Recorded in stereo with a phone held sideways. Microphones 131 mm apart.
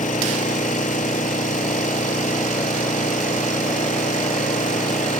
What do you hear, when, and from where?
0.0 s an engine running: 75° left (ahead or behind)